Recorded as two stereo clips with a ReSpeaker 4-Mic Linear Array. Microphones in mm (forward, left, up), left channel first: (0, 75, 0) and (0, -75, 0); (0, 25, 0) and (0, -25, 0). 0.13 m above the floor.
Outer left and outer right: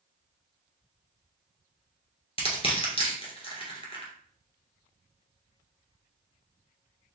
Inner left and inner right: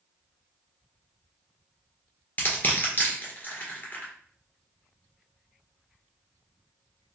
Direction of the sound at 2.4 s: 40° left (ahead or behind).